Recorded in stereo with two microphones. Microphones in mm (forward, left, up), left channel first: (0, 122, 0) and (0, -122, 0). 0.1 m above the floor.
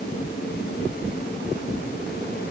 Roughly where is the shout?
No shout in this recording.